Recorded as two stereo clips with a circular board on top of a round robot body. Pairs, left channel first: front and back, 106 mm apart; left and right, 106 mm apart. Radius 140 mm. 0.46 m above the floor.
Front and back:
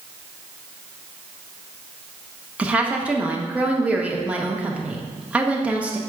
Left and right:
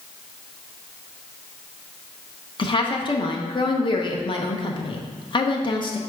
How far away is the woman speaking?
About 1.0 m.